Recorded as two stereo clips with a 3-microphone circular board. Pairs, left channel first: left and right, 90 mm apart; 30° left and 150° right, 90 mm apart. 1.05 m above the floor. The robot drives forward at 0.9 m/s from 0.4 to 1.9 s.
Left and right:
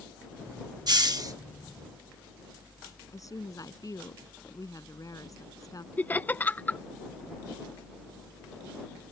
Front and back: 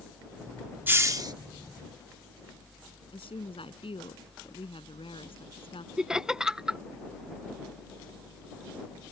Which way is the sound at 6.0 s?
135° left.